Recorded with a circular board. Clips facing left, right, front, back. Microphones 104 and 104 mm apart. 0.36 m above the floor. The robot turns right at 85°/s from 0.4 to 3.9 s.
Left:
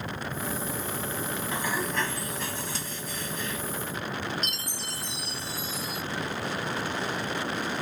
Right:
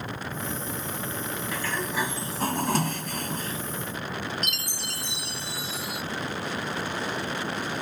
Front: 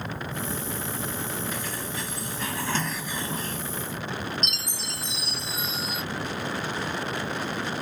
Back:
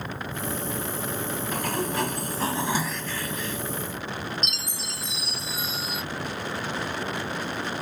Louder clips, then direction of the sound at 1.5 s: Even, back 6 dB; 150° left.